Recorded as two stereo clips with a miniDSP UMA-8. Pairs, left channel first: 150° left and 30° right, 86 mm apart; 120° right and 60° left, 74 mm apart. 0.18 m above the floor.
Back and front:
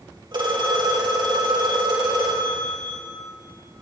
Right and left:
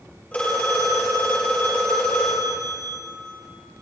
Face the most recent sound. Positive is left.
turn(degrees=-50)